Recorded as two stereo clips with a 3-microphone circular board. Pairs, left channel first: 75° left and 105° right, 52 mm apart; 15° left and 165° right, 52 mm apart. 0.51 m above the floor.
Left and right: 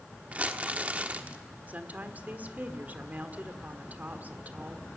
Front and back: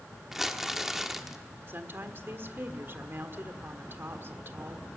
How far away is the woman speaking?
About 1.5 m.